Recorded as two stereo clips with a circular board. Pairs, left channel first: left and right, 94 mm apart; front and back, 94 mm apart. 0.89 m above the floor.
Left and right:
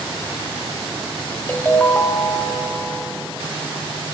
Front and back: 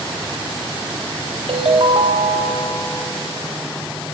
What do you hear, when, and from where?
1.5 s a ringtone: 160° left, 1.4 m